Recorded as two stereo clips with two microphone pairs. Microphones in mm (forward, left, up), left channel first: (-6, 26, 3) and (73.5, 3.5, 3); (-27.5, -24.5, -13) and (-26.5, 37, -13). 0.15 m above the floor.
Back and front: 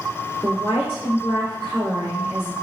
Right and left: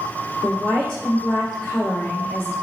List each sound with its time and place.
0.4 s a woman speaking: 35° right, 1.5 m